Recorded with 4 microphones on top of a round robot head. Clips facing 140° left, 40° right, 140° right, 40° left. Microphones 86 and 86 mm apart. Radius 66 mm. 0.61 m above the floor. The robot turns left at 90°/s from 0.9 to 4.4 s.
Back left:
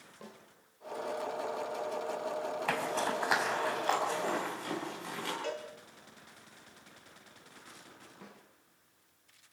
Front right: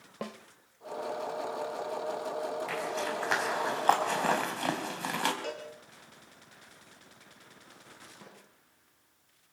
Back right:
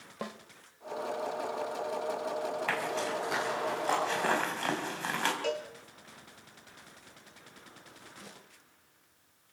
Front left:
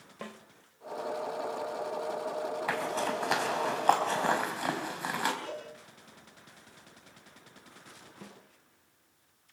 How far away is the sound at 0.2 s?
About 1.4 m.